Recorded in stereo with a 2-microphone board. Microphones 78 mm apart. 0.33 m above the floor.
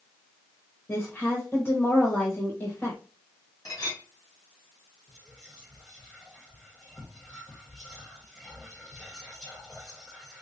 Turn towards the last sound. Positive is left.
turn(degrees=0)  # may be behind; listen again after turning